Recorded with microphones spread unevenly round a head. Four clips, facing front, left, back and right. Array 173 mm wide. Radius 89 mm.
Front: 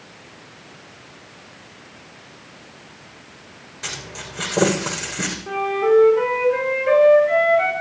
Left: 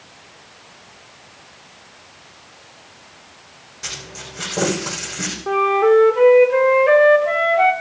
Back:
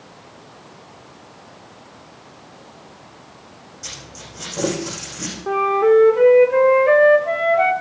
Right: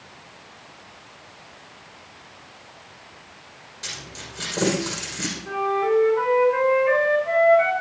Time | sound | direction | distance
3.8 | a dropped coin | 15° left | 6 m
5.5 | a flute | 135° left | 2 m